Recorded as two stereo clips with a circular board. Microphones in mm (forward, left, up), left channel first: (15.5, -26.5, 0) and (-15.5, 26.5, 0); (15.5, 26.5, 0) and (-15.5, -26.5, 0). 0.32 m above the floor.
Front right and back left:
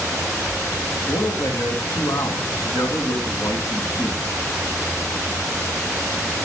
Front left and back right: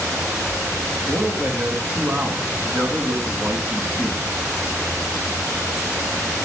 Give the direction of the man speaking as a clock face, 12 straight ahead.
2 o'clock.